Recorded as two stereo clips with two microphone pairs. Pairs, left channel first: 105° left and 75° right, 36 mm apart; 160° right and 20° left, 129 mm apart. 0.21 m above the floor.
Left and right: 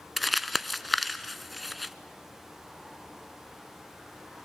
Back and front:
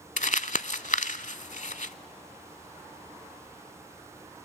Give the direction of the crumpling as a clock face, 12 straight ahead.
6 o'clock.